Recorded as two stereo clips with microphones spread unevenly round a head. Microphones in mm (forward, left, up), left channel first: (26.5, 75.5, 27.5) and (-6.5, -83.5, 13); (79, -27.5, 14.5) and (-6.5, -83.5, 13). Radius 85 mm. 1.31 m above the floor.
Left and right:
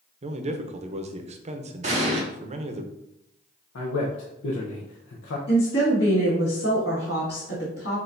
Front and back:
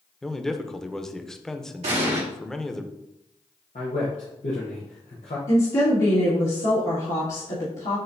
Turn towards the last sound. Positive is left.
turn(degrees=50)